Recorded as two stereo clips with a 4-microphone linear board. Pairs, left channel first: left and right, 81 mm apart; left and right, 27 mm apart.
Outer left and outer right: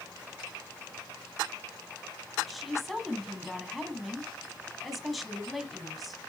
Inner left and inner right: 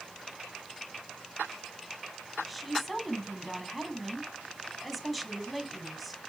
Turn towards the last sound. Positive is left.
turn(degrees=0)  # may be behind; listen again after turning